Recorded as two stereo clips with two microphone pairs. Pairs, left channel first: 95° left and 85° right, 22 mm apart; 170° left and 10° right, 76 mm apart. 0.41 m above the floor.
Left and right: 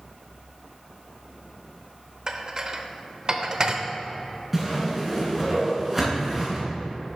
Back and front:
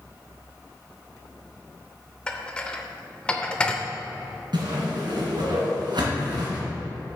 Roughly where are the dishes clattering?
Behind right.